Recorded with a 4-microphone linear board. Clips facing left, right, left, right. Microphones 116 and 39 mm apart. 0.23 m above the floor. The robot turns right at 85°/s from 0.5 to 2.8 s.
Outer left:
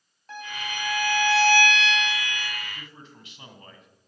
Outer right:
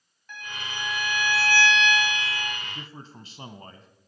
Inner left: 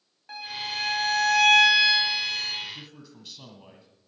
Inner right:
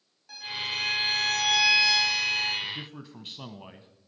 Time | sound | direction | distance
0.3 | a violin | 35° left | 5 m
2.6 | a man speaking | 25° right (ahead or behind) | 1.3 m